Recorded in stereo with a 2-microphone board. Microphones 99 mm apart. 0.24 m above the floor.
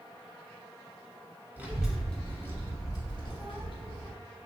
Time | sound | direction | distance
1.6 | a child speaking | 20° right (ahead or behind) | 0.7 m